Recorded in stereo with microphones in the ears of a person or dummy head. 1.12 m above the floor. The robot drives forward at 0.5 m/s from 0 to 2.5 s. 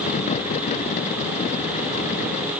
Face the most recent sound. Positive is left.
No sound to turn to.